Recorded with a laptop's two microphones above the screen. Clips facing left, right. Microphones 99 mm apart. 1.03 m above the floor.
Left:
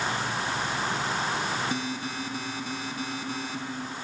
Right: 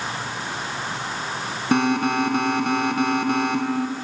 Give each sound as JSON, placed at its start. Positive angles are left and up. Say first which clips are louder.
{"t": 1.7, "sound": "an alarm", "louder": "right 12 dB", "side_deg": -65}